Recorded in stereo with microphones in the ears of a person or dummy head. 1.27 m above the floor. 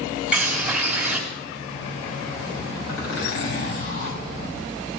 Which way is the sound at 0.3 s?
10° right (ahead or behind).